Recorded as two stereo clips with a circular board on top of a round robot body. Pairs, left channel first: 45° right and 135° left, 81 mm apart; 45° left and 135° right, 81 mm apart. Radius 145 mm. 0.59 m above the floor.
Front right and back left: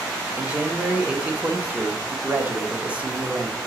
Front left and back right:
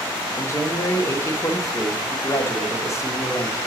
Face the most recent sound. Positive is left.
turn(degrees=75)